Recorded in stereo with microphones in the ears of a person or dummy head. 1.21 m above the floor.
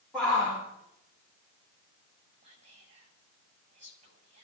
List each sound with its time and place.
0.1 s a shout: centre (ahead or behind), 4 m
2.4 s whispering: 40° right (ahead or behind), 6 m